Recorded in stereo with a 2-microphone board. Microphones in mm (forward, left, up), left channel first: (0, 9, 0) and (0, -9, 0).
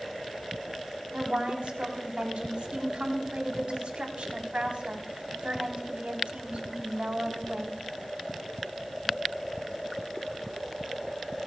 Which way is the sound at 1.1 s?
80° right.